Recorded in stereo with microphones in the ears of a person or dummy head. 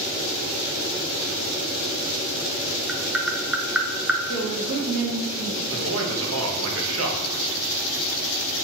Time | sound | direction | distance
2.9 | tapping | centre (ahead or behind) | 0.7 m
4.3 | a woman speaking | 75° right (ahead or behind) | 1.7 m
5.7 | a man speaking | 70° right (ahead or behind) | 1.3 m